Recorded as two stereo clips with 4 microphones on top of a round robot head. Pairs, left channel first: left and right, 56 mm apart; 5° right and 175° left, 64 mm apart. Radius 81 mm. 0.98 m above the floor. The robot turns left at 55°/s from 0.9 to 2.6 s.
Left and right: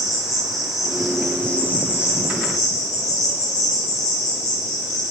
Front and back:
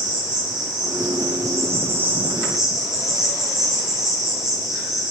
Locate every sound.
0.0 s an insect: 170° right, 0.8 m; by 5.1 s 95° left, 0.8 m